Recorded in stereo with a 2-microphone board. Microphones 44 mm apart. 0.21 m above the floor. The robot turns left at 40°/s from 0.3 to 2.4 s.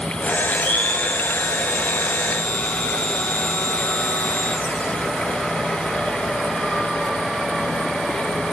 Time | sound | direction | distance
0.5 | a blender | 130° left | 2.0 m